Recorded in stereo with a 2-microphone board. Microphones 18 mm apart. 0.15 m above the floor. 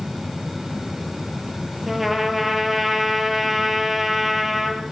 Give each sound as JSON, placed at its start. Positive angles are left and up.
{"t": 1.9, "sound": "a trumpet", "side_deg": -10, "distance_m": 4.0}